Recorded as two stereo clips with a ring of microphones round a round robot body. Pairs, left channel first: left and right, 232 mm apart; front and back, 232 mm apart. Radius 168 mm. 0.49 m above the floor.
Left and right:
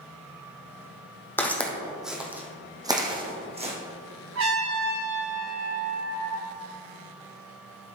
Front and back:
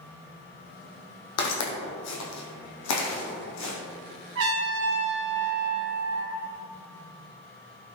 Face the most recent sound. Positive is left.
turn(degrees=-130)